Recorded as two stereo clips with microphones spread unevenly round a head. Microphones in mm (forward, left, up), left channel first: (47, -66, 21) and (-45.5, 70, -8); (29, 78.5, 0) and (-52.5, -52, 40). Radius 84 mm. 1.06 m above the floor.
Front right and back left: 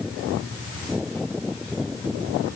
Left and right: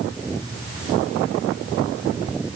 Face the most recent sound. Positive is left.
No sound to turn to.